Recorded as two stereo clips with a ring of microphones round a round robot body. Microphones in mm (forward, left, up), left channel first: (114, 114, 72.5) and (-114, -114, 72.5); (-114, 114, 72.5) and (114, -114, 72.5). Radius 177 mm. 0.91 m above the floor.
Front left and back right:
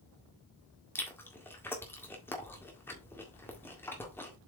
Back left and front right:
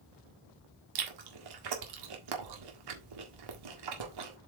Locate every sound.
0.9 s chewing: 40° right, 1.8 m